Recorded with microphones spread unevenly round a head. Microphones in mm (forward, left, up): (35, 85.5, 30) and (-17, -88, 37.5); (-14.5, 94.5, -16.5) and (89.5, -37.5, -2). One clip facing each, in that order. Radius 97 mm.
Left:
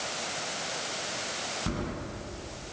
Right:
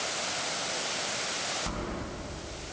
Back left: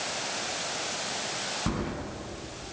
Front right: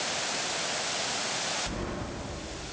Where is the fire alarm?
No fire alarm in this recording.